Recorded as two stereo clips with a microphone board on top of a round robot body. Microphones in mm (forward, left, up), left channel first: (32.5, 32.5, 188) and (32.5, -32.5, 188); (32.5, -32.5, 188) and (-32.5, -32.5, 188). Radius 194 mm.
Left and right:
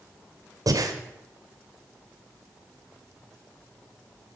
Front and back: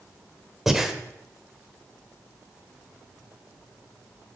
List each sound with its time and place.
0.7 s breathing: 95° right, 1.4 m